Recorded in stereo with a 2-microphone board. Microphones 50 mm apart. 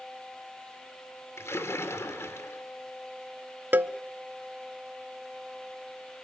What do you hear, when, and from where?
1.4 s a splash: 65° left (ahead or behind), 2.5 m
3.7 s a cowbell: 40° right (ahead or behind), 0.8 m